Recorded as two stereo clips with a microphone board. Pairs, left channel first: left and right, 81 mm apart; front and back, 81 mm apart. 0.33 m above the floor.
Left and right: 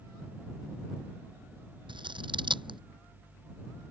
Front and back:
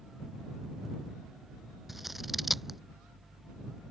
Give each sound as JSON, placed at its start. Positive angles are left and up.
{"t": 1.9, "sound": "scissors", "azimuth_deg": -90}